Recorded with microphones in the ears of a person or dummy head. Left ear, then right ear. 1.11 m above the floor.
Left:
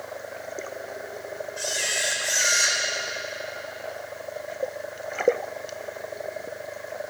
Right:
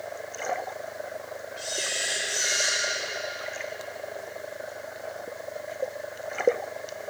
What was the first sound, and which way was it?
A camera shutter, 25° left (ahead or behind).